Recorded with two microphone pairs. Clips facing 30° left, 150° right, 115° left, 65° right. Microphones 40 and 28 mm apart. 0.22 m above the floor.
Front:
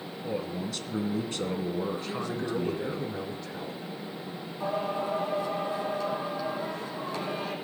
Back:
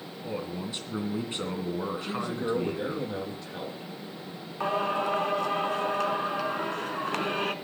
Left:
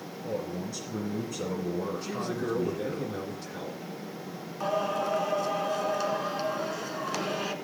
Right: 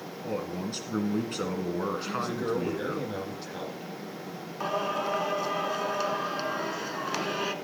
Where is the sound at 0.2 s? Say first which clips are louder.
Front 1 dB, right 1 dB; 85° right, 2.5 m.